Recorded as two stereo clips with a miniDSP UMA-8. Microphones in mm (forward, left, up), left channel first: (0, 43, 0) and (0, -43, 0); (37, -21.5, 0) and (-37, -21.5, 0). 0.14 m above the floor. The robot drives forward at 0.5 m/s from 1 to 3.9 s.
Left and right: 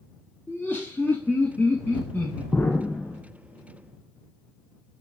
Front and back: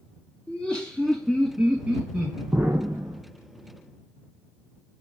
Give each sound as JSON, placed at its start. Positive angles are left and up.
{"t": 0.5, "sound": "laughter", "azimuth_deg": 60, "distance_m": 1.1}
{"t": 2.5, "sound": "an explosion", "azimuth_deg": 145, "distance_m": 0.6}